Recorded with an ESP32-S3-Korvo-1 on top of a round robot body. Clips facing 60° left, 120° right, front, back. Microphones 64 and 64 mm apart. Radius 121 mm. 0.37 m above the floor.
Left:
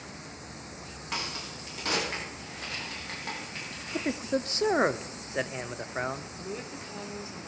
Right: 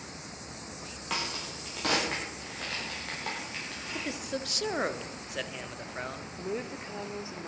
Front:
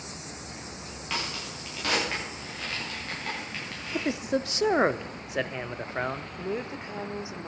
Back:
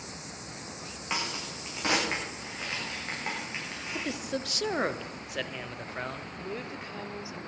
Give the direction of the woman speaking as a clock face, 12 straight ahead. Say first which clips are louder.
Right 3 dB, front 5 dB; 2 o'clock.